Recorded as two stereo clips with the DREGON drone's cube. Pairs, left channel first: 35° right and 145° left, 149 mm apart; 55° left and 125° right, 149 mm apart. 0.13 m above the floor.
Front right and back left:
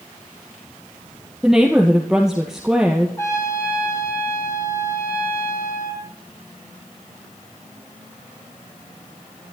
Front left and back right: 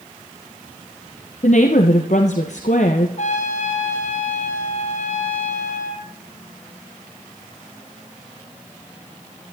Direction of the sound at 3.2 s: 35° left.